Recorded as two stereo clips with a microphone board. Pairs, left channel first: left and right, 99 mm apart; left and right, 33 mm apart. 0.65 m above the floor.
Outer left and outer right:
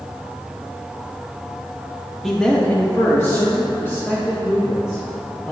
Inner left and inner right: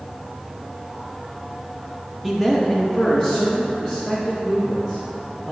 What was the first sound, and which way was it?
A man speaking, 5° left (ahead or behind).